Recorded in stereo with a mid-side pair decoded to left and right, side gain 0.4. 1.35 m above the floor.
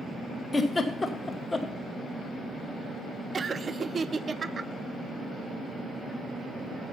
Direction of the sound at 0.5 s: 25° left.